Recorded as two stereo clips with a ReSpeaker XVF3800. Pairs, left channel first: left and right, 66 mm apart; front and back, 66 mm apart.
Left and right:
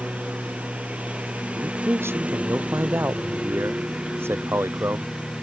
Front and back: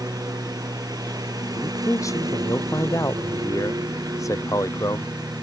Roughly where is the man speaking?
Ahead right.